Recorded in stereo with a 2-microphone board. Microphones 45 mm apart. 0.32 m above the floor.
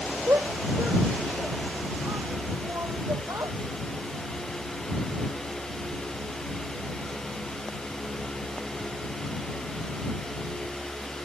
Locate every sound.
0.3 s a shout: 70° right (ahead or behind); by 3.6 s 80° right